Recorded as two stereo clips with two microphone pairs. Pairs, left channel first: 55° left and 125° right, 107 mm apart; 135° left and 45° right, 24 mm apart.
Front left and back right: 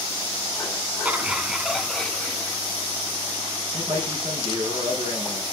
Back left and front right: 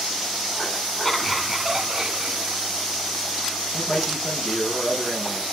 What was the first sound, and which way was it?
Laughter, 170° right.